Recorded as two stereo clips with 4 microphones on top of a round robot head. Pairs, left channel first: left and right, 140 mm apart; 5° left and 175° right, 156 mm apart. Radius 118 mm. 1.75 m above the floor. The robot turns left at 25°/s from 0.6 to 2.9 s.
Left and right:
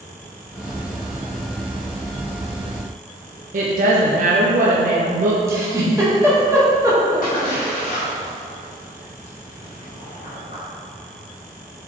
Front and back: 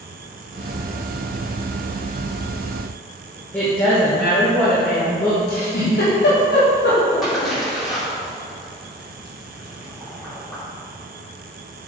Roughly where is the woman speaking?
Right.